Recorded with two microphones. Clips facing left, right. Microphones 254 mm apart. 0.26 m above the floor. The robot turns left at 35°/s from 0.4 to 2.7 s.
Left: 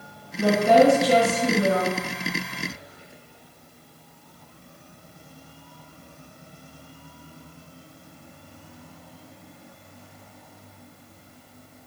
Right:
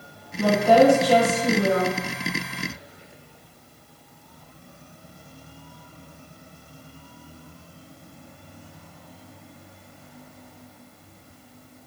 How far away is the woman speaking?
About 1.2 m.